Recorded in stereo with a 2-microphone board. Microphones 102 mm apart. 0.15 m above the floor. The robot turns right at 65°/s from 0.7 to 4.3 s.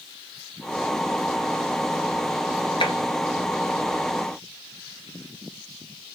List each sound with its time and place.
2.8 s tapping: 55° left (ahead or behind), 1.2 m; by 3.0 s 50° left (ahead or behind), 1.2 m